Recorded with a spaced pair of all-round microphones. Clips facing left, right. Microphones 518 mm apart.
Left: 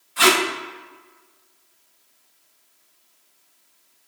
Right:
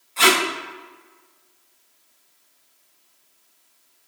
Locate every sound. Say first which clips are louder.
0.2 s tape being pulled: left 1 dB; 35° left (ahead or behind), 1.2 m